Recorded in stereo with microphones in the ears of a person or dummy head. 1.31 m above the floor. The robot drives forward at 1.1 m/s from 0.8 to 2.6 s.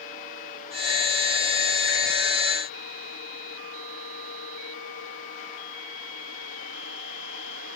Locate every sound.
Only background noise.